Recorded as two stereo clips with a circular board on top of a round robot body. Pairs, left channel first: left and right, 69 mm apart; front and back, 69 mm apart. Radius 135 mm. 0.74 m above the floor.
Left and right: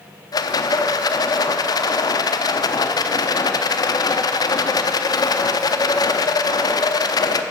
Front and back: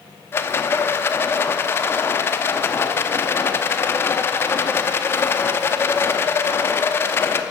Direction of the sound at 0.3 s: 60° left.